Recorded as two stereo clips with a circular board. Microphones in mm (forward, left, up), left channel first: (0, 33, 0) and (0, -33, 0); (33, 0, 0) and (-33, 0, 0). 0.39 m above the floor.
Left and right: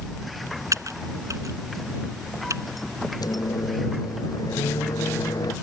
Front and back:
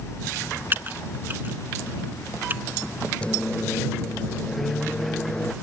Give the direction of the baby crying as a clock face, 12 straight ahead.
I don't hear a baby crying.